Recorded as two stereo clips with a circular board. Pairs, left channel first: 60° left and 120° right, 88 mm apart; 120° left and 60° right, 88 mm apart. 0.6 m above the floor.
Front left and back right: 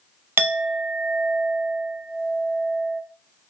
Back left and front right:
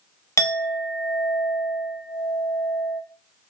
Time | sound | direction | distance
0.4 | a clink | 175° left | 0.6 m